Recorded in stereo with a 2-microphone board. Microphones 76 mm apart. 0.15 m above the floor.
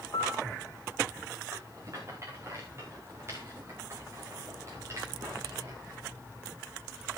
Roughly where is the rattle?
Right.